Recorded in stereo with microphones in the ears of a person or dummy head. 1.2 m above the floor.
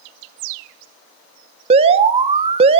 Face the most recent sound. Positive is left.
turn(degrees=-35)  # may be behind; listen again after turning